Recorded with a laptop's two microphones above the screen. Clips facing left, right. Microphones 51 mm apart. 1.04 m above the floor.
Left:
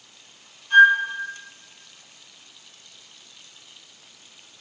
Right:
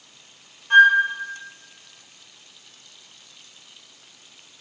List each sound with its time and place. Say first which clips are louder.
0.7 s a flute: even; 50° right (ahead or behind), 0.6 m